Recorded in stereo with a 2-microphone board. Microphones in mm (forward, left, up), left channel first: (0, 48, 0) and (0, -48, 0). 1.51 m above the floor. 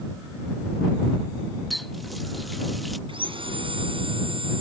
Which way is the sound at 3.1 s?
65° right (ahead or behind).